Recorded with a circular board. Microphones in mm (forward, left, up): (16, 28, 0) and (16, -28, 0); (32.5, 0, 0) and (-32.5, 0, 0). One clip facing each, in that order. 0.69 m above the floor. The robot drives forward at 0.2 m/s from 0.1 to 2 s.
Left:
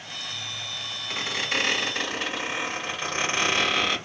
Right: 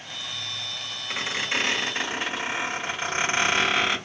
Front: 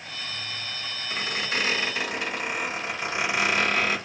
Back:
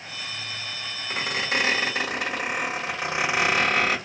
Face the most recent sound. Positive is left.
turn(degrees=-165)